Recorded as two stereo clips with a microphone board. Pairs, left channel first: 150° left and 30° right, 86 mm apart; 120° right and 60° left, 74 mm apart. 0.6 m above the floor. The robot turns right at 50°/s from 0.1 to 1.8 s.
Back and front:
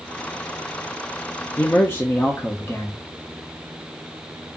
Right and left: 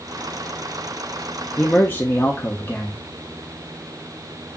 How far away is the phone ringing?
I don't hear a phone ringing.